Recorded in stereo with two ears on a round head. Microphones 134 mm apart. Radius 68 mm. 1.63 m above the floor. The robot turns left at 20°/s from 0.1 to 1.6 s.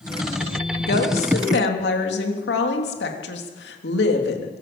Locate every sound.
0.8 s a woman speaking: 75° left (ahead or behind), 3.5 m; by 4.6 s 90° left, 3.5 m